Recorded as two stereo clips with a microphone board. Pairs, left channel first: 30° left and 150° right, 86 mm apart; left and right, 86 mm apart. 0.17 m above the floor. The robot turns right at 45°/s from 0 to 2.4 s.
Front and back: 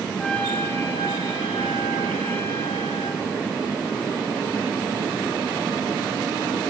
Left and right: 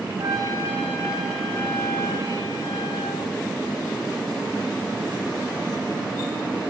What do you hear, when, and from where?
0.2 s a trumpet: 50° right, 6.5 m; by 3.2 s 50° left, 6.5 m